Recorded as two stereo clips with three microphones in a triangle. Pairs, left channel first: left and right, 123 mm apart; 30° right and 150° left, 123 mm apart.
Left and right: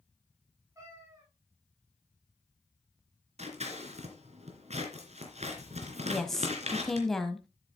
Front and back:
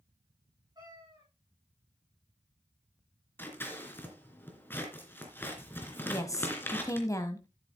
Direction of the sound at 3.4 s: 100° right.